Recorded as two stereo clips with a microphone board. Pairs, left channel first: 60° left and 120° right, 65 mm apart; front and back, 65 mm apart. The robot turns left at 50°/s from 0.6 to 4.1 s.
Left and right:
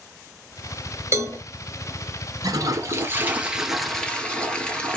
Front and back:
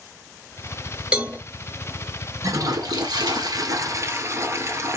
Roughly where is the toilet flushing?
Behind right.